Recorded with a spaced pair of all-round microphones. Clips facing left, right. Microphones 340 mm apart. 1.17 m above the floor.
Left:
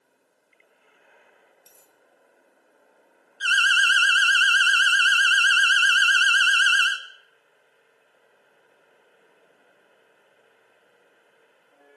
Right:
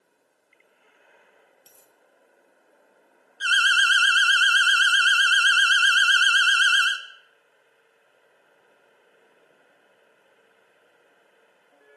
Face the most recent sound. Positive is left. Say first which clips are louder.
# even
turn(degrees=0)  # may be behind; listen again after turning